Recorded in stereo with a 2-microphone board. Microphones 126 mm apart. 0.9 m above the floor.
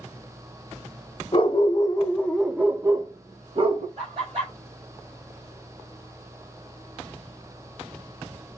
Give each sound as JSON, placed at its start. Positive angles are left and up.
{"t": 1.3, "sound": "a dog barking", "side_deg": 45, "distance_m": 0.8}
{"t": 4.0, "sound": "laughter", "side_deg": -50, "distance_m": 3.0}